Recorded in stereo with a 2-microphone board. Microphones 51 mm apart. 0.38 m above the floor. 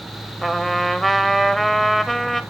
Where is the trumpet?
5° left (ahead or behind), 0.7 m.